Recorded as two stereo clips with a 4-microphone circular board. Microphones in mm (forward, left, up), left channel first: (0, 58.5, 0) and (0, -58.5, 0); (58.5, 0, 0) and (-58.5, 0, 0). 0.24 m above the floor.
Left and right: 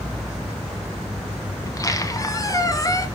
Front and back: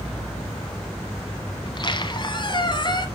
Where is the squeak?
35° left, 1.2 m.